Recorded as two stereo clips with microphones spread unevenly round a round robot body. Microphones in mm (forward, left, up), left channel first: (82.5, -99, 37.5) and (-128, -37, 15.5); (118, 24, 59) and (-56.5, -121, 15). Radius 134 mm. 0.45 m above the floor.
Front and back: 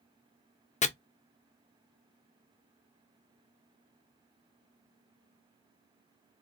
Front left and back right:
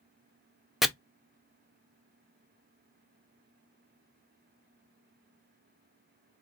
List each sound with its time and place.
0.8 s chopping: 65° right, 0.6 m